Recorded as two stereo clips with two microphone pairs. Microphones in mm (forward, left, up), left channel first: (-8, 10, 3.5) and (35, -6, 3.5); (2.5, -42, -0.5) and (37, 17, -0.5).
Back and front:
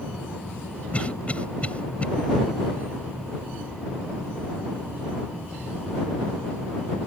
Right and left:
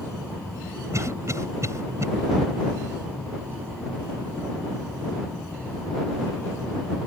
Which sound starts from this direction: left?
A cough, at 0.9 s.